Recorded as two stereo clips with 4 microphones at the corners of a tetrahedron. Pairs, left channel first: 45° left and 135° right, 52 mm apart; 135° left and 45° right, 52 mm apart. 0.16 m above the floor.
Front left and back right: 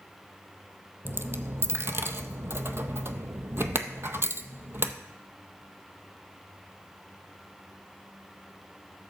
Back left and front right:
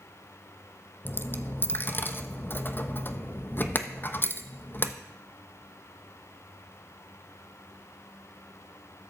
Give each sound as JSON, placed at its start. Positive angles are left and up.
{"t": 1.1, "sound": "a dropped coin", "azimuth_deg": -175, "distance_m": 0.6}